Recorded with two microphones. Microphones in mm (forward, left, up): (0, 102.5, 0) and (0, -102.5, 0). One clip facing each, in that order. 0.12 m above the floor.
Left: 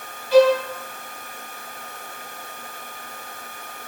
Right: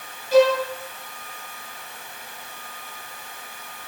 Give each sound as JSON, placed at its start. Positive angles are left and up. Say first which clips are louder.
{"t": 0.3, "sound": "a violin", "louder": "left 2 dB", "side_deg": -45, "distance_m": 1.6}